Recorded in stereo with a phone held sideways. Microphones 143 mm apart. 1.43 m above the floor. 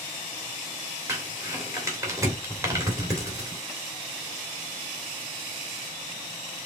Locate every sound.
1.1 s crumpling: 20° right (ahead or behind), 2.5 m